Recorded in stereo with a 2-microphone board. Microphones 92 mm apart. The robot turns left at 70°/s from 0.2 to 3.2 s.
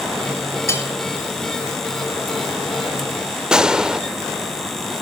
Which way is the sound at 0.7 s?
30° left (ahead or behind).